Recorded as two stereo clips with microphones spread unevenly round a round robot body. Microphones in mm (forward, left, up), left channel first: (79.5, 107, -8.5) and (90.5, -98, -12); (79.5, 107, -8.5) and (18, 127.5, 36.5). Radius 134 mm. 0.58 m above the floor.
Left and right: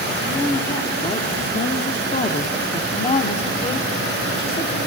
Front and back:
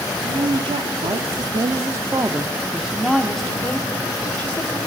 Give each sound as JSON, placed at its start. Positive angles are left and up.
{"t": 0.2, "sound": "a woman speaking", "azimuth_deg": 175, "distance_m": 1.4}